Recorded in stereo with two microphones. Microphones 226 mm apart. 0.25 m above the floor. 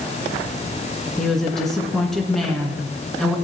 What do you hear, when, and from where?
1.2 s a woman speaking: centre (ahead or behind), 2.5 m